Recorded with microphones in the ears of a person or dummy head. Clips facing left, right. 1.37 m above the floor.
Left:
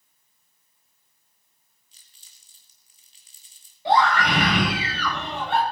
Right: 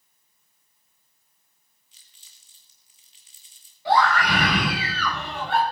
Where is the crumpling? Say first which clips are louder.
Even; 35° left (ahead or behind), 1.9 m.